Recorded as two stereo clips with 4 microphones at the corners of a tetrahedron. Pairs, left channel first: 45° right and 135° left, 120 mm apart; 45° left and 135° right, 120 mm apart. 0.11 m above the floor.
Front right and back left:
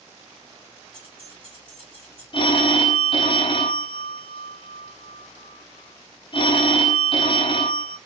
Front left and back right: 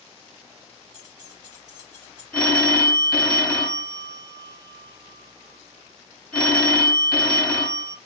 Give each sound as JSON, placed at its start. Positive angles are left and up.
{"t": 0.9, "sound": "keys jangling", "azimuth_deg": 165, "distance_m": 2.5}
{"t": 2.3, "sound": "a phone ringing", "azimuth_deg": -35, "distance_m": 0.9}